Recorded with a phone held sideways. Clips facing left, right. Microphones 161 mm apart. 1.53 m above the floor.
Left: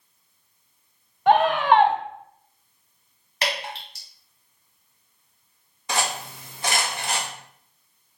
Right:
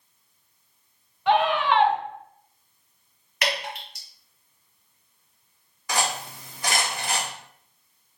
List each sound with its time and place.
1.3 s a scream: 50° left (ahead or behind), 0.6 m
3.4 s dripping: 30° left (ahead or behind), 1.3 m
5.9 s cutlery clinking: 25° left (ahead or behind), 1.3 m